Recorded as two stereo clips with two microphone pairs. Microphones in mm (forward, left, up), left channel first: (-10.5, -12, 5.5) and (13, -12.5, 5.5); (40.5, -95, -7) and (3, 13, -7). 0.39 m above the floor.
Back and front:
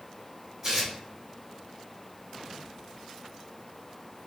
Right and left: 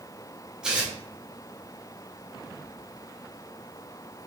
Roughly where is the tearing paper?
Ahead left.